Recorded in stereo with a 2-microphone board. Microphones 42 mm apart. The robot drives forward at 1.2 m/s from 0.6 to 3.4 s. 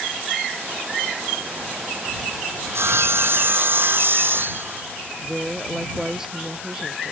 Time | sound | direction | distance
2.6 | sawing | 70° right (ahead or behind) | ?
5.2 | a woman speaking | 10° right (ahead or behind) | ?